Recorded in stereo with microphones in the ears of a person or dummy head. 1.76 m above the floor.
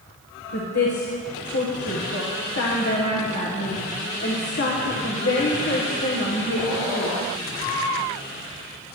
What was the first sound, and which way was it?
A woman speaking, 55° left (ahead or behind).